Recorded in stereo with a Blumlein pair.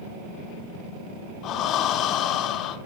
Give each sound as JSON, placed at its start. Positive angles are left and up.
{"t": 1.4, "sound": "breathing", "azimuth_deg": 35, "distance_m": 1.5}